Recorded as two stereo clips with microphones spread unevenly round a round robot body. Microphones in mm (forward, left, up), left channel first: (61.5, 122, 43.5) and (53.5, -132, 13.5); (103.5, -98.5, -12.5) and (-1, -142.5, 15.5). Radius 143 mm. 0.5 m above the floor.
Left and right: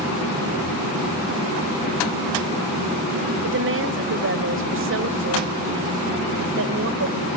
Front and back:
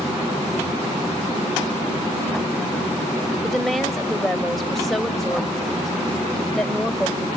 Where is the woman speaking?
60° right, 2 m.